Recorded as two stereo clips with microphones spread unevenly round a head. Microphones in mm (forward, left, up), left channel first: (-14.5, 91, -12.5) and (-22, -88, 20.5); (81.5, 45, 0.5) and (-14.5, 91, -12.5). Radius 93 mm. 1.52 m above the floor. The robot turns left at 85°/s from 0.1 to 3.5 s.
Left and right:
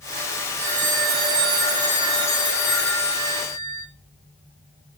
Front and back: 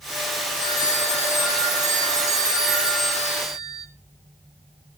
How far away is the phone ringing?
About 3 m.